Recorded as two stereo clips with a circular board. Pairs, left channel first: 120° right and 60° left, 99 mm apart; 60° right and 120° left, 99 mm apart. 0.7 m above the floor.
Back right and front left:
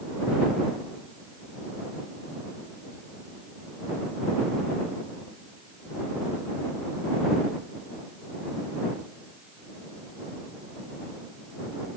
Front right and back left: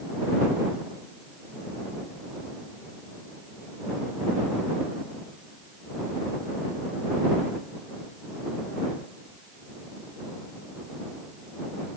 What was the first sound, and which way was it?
Only background noise.